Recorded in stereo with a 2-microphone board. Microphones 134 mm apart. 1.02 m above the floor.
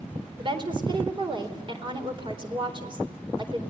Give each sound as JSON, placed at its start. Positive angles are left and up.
{"t": 0.4, "sound": "a woman speaking", "side_deg": -40, "distance_m": 4.0}